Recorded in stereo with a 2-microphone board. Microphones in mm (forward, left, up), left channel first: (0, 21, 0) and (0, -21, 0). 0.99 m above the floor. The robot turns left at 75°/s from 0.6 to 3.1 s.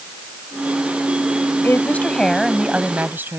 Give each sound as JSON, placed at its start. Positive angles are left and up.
{"t": 1.6, "sound": "a woman speaking", "azimuth_deg": 60}